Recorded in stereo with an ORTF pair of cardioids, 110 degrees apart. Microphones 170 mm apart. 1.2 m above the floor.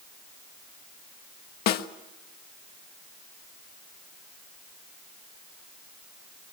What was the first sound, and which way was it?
A snare drum, 70° left.